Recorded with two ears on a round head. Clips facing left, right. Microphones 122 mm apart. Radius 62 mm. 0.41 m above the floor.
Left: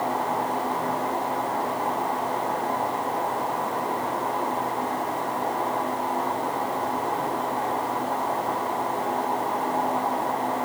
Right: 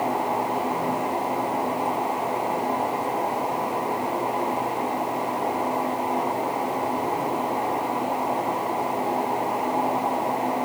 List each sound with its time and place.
Only background noise.